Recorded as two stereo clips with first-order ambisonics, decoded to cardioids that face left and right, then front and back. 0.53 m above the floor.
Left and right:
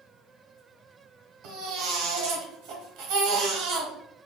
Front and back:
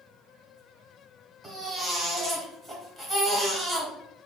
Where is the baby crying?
85° right, 1.0 m.